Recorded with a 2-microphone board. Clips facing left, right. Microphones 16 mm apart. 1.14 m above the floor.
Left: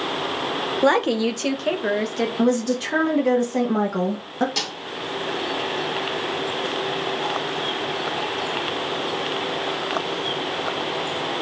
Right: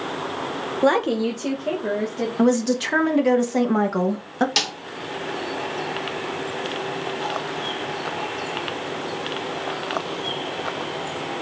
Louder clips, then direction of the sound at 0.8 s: Even; 5° left (ahead or behind).